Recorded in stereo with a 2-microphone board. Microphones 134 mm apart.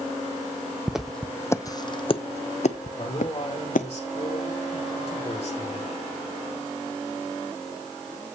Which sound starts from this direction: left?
A man speaking, at 3.0 s.